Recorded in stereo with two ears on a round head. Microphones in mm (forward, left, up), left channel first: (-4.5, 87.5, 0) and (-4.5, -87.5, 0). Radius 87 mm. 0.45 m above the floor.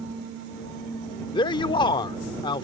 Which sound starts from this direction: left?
A man speaking, at 1.3 s.